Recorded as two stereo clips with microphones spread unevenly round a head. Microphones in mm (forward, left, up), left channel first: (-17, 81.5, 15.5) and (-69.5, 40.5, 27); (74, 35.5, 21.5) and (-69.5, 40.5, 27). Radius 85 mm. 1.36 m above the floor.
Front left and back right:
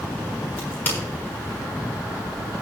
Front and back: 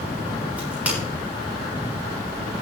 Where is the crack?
100° left, 6 m.